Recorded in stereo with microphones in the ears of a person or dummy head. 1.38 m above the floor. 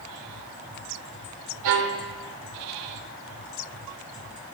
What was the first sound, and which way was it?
A violin, 70° right (ahead or behind).